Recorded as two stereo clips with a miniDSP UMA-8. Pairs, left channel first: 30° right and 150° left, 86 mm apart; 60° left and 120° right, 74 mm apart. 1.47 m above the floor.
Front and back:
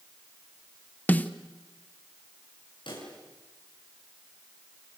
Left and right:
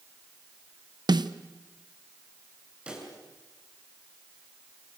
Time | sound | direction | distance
1.1 | a snare drum | 100° right | 1.0 m
2.9 | a pop | 45° right | 7.5 m